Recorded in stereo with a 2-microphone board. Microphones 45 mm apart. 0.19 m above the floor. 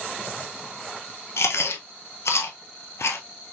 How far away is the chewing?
About 0.8 m.